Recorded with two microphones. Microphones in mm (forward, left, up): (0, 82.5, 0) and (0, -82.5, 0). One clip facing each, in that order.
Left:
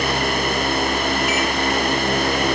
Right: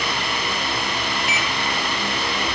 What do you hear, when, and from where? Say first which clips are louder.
1.3 s a microwave: left 6 dB; centre (ahead or behind), 4.5 m